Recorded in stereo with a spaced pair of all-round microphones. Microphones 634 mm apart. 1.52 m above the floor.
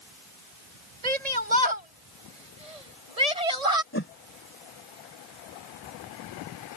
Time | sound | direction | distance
1.0 | a shout | 75° right (ahead or behind) | ?
3.9 | a whoosh | 20° left (ahead or behind) | ?